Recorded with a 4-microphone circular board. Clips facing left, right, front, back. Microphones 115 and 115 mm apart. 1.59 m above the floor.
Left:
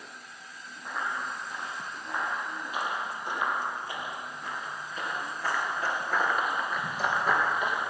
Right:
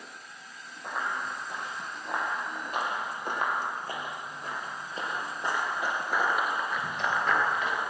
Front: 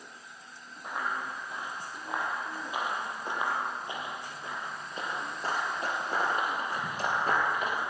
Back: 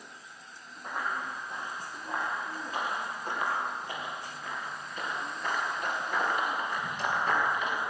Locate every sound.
0.8 s running footsteps: 80° right, 4 m; by 7.8 s 25° left, 2 m